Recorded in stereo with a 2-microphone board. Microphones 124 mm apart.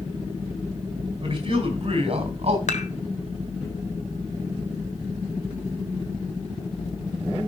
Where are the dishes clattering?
65° left (ahead or behind), 1.4 m.